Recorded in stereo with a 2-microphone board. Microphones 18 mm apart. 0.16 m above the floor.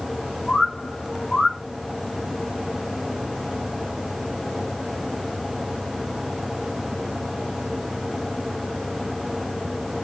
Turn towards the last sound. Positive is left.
turn(degrees=65)  # may be behind; listen again after turning